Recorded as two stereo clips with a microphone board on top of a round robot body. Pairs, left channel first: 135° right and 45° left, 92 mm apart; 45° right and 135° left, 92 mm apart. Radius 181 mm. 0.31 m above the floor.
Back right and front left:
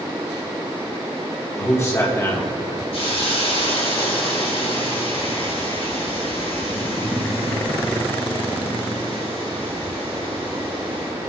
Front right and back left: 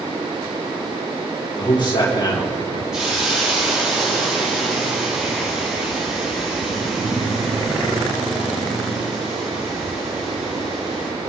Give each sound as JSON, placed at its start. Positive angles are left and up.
{"t": 1.6, "sound": "a man speaking", "azimuth_deg": -80, "distance_m": 2.5}
{"t": 2.9, "sound": "a hiss", "azimuth_deg": -140, "distance_m": 5.5}